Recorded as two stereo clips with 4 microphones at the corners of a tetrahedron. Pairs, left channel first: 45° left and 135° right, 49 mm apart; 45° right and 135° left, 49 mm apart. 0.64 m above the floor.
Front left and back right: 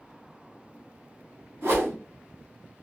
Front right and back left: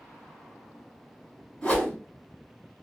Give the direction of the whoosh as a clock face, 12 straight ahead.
4 o'clock.